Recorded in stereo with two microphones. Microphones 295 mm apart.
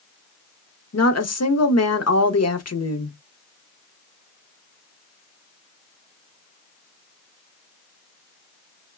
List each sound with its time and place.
0.9 s a woman speaking: 60° left (ahead or behind), 0.6 m